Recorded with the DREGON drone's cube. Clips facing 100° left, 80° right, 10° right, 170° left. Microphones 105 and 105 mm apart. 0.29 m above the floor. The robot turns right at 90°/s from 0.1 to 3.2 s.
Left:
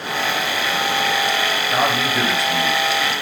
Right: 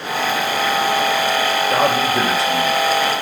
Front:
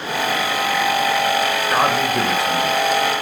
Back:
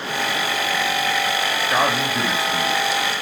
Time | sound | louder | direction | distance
1.7 | a man speaking | right 2 dB, front 2 dB | 75° right | 4 m